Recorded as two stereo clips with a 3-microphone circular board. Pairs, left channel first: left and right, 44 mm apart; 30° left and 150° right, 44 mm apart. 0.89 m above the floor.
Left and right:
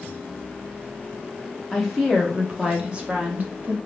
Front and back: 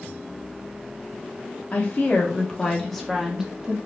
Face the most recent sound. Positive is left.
turn(degrees=-95)